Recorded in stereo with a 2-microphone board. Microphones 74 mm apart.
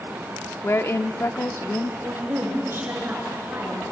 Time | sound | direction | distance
0.6 | a woman speaking | 35° left (ahead or behind) | 0.8 m
2.0 | a woman speaking | 30° right (ahead or behind) | 9 m